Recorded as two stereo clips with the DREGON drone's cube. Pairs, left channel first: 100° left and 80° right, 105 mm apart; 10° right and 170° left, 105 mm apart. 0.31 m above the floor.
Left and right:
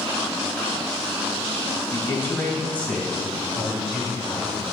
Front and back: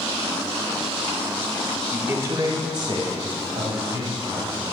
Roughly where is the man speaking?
Behind left.